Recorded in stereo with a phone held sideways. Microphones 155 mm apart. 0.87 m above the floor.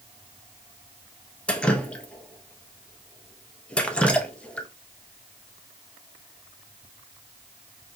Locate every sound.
1.5 s dripping: 5° left (ahead or behind), 0.5 m